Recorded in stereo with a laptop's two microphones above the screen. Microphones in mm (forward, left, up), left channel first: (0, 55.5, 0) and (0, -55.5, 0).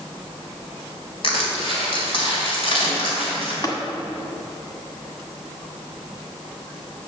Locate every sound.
1.2 s crushing: 60° left (ahead or behind), 2.5 m
3.6 s tapping: 40° left (ahead or behind), 1.5 m